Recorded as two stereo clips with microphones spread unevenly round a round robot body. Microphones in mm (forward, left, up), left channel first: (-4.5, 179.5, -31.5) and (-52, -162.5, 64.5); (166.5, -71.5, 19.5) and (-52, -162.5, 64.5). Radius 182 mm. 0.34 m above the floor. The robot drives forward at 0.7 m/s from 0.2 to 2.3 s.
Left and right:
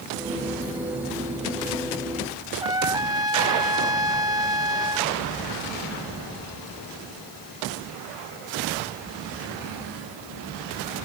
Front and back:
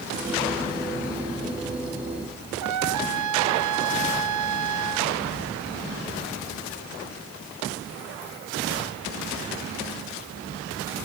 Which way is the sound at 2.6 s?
Straight behind.